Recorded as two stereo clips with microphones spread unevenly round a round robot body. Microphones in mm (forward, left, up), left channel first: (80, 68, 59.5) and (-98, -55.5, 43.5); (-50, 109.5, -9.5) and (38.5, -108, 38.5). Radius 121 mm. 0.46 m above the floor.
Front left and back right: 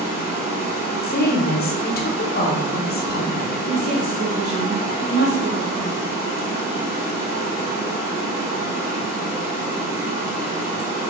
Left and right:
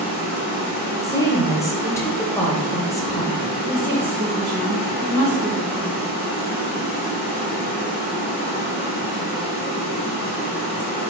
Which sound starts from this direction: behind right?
A woman speaking, at 3.6 s.